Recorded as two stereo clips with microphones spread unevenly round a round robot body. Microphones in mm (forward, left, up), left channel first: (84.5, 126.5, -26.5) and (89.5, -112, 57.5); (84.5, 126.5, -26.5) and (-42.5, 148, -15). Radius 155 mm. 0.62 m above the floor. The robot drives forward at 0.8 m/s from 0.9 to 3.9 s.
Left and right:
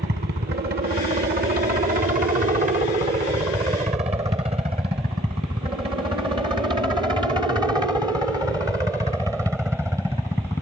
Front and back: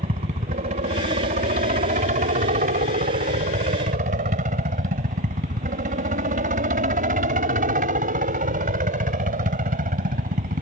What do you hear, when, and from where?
0.0 s a helicopter: 155° right; by 10.6 s straight behind